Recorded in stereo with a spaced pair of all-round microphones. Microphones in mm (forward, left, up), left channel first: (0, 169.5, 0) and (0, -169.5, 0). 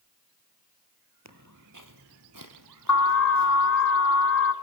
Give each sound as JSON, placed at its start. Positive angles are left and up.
{"t": 1.2, "sound": "footsteps", "side_deg": -55, "distance_m": 2.5}
{"t": 2.9, "sound": "an alarm", "side_deg": 60, "distance_m": 2.5}